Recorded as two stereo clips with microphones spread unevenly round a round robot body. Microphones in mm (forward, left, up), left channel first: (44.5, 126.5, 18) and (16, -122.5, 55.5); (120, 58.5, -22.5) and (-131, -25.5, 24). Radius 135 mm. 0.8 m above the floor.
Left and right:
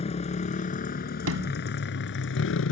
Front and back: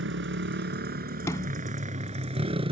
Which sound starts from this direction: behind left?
A motorcycle, at 0.0 s.